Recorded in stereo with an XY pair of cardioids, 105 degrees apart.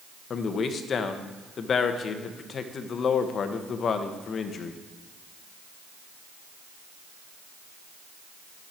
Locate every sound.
0.3 s a man speaking: 50° left, 1.1 m